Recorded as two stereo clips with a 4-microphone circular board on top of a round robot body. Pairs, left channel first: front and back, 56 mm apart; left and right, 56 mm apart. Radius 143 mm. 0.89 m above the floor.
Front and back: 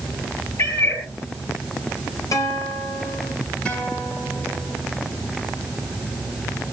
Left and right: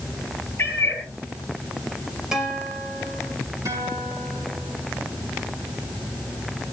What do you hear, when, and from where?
0.6 s a cat meowing: 40° left, 4.5 m
2.3 s a guitar: 15° right, 5 m
3.6 s a guitar: 70° right, 7.5 m